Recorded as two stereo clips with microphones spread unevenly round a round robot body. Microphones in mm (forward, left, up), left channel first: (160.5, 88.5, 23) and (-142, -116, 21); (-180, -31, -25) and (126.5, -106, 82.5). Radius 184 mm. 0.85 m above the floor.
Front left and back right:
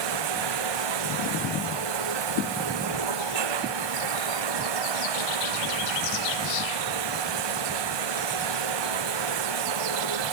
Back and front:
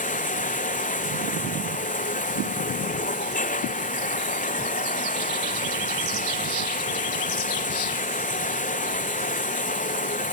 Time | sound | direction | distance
0.0 | running water | 125° right | ?